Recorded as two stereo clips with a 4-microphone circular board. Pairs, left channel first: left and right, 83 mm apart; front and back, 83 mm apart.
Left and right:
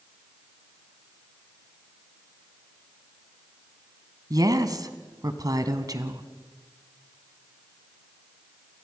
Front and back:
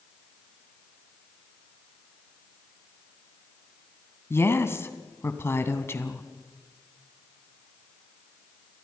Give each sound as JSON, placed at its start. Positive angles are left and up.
{"t": 4.3, "sound": "a woman speaking", "azimuth_deg": -55, "distance_m": 2.0}